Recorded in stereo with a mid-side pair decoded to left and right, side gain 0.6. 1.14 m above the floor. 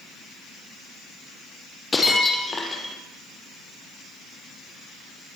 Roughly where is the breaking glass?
Ahead.